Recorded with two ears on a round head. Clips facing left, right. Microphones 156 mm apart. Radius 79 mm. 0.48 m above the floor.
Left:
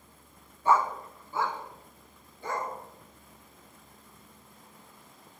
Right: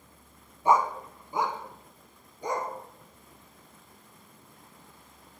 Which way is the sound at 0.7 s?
15° right (ahead or behind).